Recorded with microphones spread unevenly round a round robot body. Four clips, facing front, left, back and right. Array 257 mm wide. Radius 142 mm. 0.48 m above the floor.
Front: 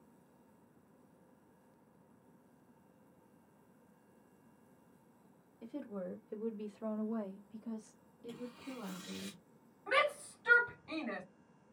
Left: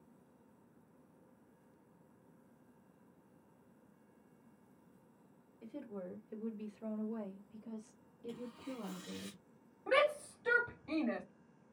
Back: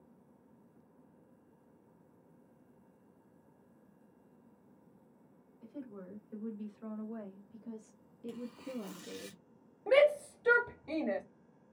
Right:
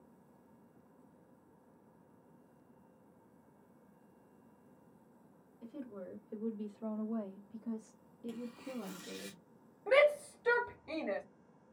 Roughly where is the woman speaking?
Ahead.